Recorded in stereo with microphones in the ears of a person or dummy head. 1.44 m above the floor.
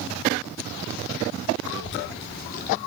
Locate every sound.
1.6 s a child speaking: 70° left (ahead or behind), 2 m; by 2.8 s 45° left (ahead or behind), 1.7 m